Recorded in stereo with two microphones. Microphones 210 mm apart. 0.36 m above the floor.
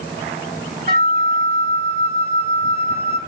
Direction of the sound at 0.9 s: 50° right (ahead or behind).